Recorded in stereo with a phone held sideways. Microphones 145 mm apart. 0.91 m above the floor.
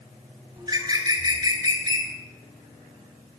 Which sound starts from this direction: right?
A bird, at 0.6 s.